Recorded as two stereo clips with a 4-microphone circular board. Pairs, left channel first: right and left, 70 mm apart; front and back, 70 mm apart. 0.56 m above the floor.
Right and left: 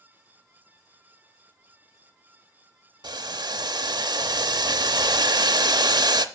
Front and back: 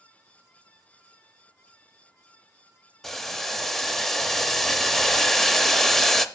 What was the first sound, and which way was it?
Boiling, 85° left.